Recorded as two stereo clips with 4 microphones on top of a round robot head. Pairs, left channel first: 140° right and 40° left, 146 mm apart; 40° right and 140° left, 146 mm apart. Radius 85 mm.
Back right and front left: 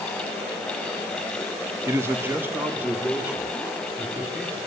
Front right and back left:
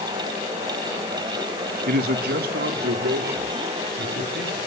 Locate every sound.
1.9 s a man speaking: 115° left, 1.5 m; by 4.6 s 125° left, 4.5 m